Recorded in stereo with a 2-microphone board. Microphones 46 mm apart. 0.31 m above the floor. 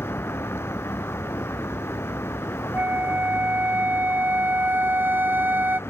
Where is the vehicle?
65° left (ahead or behind).